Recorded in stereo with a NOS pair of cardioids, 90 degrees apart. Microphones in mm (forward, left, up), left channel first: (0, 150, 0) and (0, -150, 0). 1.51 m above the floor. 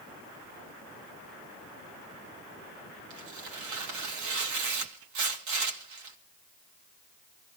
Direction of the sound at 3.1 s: 70° right.